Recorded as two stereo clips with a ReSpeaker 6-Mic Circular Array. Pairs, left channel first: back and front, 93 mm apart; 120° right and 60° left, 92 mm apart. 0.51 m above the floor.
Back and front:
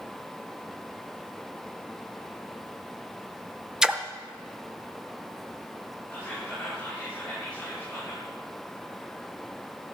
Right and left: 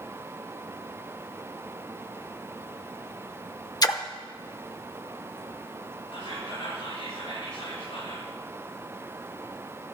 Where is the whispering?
105° right, 8 m.